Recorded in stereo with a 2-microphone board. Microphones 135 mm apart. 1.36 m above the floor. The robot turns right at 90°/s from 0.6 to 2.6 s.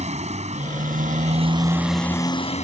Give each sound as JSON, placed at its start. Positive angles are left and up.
{"t": 0.0, "sound": "a motorcycle", "azimuth_deg": -120}